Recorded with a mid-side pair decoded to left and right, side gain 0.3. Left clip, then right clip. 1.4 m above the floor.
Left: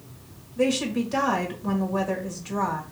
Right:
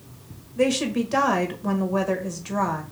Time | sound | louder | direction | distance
0.6 | a woman speaking | right 2 dB | 50° right | 1.7 m